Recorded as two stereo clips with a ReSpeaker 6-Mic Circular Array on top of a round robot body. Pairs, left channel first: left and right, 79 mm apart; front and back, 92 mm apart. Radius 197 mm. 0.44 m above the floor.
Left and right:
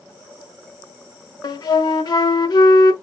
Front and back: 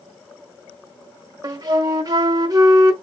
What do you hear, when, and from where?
1.4 s a flute: 130° left, 0.8 m